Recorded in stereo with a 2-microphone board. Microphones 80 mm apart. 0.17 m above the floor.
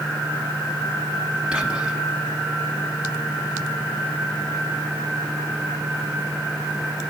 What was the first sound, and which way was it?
Whispering, 15° right (ahead or behind).